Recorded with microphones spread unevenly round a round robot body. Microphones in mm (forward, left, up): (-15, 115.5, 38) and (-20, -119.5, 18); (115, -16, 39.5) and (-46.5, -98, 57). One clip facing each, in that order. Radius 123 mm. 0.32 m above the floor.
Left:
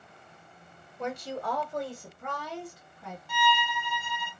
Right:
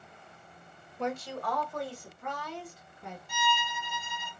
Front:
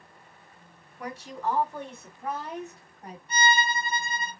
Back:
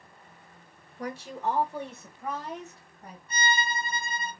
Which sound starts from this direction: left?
A violin, at 3.3 s.